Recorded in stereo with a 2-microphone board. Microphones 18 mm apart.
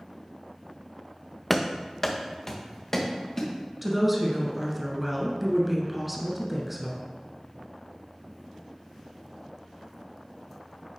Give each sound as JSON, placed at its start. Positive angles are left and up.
{"t": 1.5, "sound": "running footsteps", "side_deg": 10, "distance_m": 0.7}
{"t": 3.8, "sound": "a woman speaking", "side_deg": -10, "distance_m": 1.4}